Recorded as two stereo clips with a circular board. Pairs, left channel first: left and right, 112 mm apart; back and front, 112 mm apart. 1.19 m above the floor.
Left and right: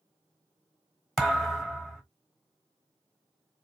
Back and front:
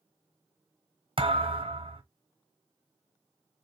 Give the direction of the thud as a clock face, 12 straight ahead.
12 o'clock.